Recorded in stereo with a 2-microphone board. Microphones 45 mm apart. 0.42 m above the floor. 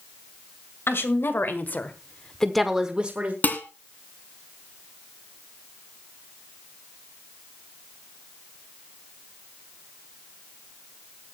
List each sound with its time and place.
0.9 s a woman speaking: 60° left (ahead or behind), 2.0 m; by 3.3 s 35° right (ahead or behind), 1.3 m
3.4 s dishes clattering: 40° left (ahead or behind), 2.5 m